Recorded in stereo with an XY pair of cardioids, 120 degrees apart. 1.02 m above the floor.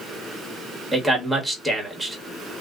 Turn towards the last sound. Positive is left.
turn(degrees=-15)